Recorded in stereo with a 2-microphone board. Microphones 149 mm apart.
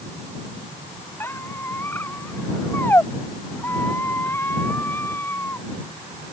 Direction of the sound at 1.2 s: 15° left (ahead or behind).